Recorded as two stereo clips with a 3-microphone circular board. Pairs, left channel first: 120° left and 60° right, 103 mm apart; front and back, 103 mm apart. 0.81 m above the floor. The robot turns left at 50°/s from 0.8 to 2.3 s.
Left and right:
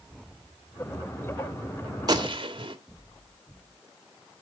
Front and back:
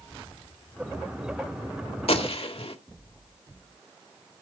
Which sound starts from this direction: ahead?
A gunshot, at 2.1 s.